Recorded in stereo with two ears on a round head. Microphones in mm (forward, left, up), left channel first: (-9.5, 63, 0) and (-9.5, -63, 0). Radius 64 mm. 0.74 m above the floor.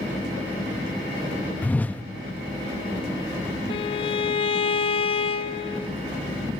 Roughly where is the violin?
Left.